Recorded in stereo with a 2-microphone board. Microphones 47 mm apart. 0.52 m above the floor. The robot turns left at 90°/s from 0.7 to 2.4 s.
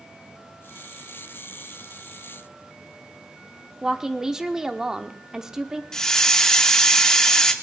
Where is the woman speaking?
10° right (ahead or behind), 0.9 m.